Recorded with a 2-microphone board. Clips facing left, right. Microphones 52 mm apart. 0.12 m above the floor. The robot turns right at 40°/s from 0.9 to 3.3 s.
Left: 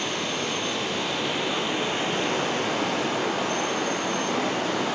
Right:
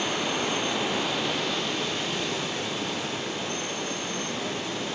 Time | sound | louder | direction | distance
0.0 | running water | right 1 dB | 15° right | 2.5 m